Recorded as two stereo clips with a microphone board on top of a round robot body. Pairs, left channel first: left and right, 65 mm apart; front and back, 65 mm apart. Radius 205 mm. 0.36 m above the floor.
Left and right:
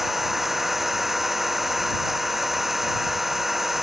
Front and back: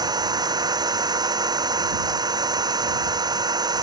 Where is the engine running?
Straight behind.